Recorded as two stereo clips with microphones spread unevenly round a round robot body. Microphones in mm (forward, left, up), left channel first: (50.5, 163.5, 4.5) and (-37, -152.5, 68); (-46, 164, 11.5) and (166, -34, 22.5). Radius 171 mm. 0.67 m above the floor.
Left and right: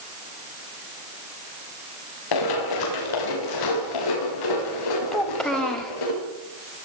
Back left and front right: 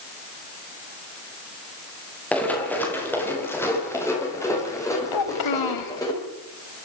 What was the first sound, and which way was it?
Running footsteps, 50° left.